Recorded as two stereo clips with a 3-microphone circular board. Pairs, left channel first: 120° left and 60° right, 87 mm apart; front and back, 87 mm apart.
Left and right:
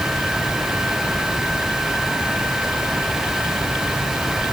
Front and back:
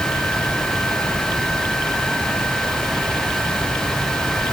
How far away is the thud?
No thud in this recording.